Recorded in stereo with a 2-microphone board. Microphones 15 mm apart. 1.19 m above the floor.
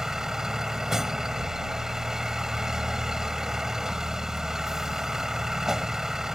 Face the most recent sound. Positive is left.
turn(degrees=-30)  # may be behind; listen again after turning